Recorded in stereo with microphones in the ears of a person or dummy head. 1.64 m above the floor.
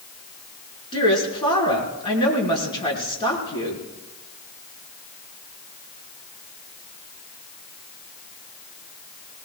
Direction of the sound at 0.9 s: 25° left (ahead or behind).